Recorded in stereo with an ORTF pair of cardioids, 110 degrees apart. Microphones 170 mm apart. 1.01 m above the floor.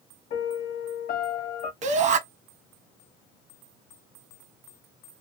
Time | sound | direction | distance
0.3 | a piano | 60° left | 1.2 m
1.8 | a shout | 45° right | 0.8 m